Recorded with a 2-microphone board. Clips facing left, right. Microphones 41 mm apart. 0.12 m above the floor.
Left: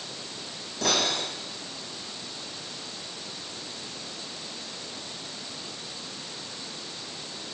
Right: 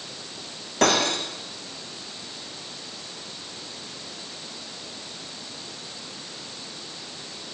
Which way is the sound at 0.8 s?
70° right (ahead or behind).